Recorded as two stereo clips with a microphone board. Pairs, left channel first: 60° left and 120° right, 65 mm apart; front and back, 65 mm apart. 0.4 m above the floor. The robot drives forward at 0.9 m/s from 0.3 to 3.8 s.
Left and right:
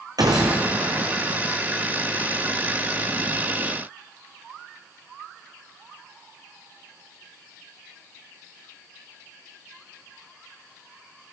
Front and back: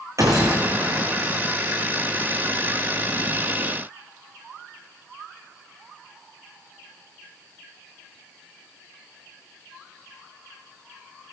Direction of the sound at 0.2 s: 140° right.